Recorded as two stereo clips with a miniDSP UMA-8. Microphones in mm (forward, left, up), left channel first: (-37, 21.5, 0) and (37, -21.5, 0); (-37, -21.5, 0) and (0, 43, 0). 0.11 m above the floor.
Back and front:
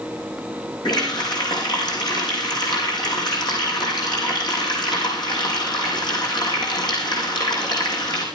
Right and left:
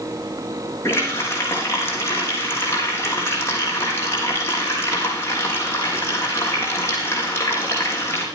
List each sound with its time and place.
0.8 s a running tap: straight behind, 4.5 m